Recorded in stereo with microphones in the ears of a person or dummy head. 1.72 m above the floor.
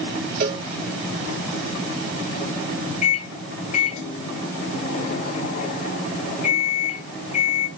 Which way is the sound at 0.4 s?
55° right (ahead or behind).